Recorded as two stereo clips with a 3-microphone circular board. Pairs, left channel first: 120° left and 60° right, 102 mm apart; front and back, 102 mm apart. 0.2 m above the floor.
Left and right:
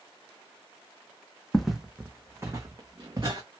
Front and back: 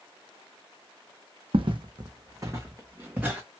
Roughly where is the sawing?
I don't hear sawing.